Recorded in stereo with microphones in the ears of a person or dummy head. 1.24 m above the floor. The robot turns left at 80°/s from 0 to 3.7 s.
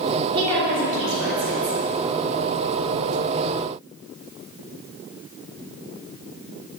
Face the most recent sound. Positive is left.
turn(degrees=65)